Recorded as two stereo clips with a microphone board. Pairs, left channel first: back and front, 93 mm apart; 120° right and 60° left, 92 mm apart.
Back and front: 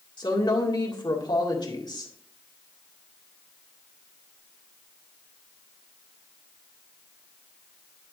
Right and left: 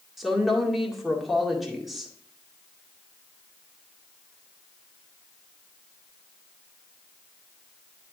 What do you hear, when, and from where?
0.2 s a woman speaking: 145° left, 2.0 m